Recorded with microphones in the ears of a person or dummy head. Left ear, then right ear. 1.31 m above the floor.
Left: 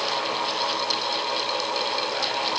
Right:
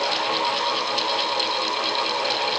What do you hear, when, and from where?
Only background noise.